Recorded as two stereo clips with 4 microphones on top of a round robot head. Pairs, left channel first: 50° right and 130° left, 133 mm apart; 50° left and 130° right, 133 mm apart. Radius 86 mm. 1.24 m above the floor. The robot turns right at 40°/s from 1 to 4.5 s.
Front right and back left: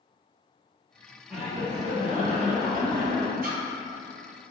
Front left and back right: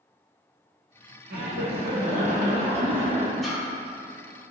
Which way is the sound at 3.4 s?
140° left.